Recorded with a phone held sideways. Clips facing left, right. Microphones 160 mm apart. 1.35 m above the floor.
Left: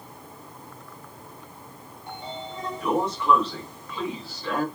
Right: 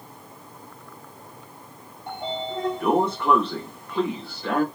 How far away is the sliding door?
About 1.0 m.